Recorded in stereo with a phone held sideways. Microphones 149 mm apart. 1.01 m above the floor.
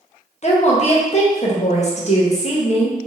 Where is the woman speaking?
50° left (ahead or behind), 0.6 m.